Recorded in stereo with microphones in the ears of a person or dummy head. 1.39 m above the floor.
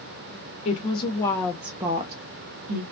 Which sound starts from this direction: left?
A woman speaking, at 0.7 s.